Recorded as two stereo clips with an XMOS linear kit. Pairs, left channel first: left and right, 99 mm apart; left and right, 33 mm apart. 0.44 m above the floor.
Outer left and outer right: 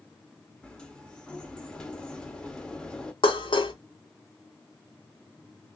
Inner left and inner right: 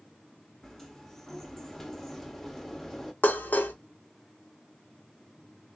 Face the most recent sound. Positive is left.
turn(degrees=60)  # may be behind; listen again after turning